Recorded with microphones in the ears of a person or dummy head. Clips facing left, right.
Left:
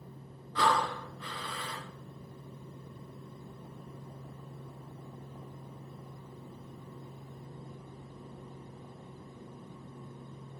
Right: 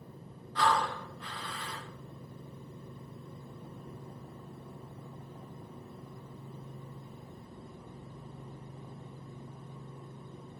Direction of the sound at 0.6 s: 65° left (ahead or behind).